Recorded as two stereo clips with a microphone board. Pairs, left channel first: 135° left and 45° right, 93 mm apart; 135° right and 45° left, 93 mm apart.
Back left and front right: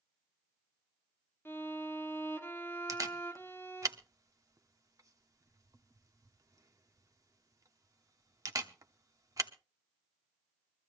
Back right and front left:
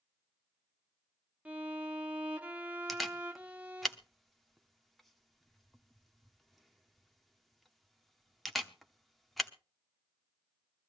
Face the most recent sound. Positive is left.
turn(degrees=-45)